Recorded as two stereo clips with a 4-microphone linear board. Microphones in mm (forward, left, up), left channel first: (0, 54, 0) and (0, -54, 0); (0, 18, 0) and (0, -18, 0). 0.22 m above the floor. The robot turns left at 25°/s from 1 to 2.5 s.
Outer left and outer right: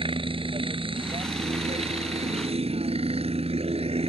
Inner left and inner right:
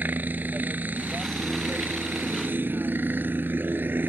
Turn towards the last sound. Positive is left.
turn(degrees=-100)